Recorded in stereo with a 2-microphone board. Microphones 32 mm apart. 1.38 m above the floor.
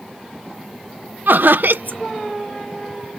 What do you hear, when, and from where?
1.3 s laughter: 75° right (ahead or behind)